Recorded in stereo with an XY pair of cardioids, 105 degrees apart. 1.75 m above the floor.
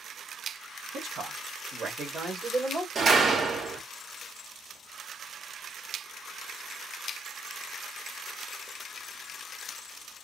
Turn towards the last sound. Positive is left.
turn(degrees=-40)